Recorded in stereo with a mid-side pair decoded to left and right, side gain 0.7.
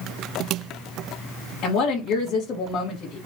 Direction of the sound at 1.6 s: 50° left.